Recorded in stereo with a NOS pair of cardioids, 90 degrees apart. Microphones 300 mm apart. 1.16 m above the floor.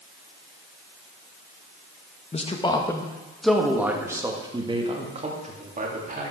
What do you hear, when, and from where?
2.3 s a man speaking: 25° left, 1.6 m; by 6.3 s 30° right, 3 m